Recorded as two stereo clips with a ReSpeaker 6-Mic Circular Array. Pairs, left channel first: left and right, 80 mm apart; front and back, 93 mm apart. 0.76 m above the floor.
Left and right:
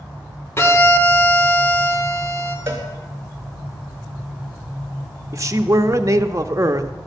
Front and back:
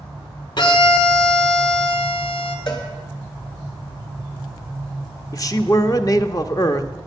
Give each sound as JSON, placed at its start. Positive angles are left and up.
{"t": 0.6, "sound": "a violin", "azimuth_deg": 35, "distance_m": 1.6}
{"t": 2.7, "sound": "a cowbell", "azimuth_deg": -30, "distance_m": 2.0}
{"t": 5.3, "sound": "a man speaking", "azimuth_deg": -45, "distance_m": 0.8}